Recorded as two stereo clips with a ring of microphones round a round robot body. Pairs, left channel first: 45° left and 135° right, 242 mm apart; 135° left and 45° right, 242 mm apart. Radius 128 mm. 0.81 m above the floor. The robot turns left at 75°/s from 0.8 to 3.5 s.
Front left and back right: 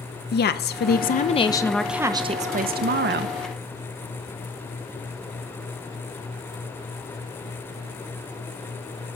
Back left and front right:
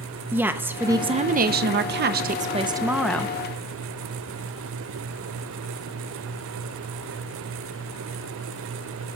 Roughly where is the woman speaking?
Ahead left.